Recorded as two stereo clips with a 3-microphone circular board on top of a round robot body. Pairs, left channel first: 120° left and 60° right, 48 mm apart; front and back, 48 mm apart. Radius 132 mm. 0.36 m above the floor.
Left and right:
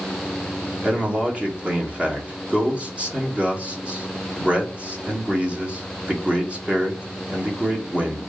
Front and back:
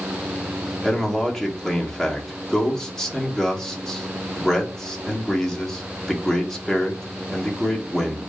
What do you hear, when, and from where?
0.8 s a man speaking: 70° right, 1.6 m